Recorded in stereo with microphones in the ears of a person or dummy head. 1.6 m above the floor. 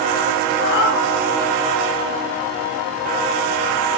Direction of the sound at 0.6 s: 70° left (ahead or behind).